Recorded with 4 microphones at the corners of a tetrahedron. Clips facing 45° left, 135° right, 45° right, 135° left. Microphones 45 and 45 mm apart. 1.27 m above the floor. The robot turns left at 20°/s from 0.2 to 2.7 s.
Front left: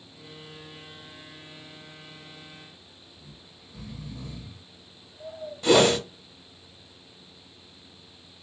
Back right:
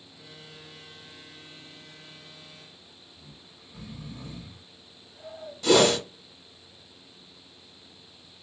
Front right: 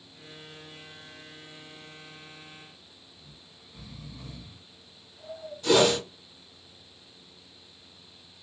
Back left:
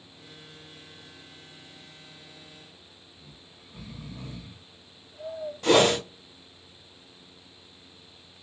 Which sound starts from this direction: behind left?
A whoosh, at 5.6 s.